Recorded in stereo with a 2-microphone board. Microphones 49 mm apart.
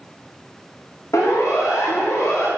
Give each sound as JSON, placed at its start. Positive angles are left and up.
{"t": 1.1, "sound": "a siren", "side_deg": 80, "distance_m": 5.0}